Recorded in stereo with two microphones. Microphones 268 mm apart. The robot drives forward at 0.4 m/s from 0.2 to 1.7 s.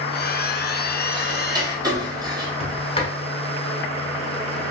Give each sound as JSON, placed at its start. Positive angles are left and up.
{"t": 1.1, "sound": "ticking", "side_deg": -20, "distance_m": 0.7}
{"t": 2.6, "sound": "a sliding door", "side_deg": 25, "distance_m": 0.8}